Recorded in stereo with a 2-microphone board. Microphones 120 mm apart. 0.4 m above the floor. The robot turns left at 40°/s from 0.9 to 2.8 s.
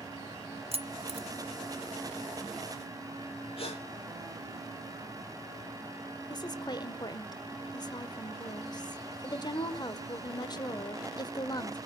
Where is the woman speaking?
35° left (ahead or behind), 1.4 m.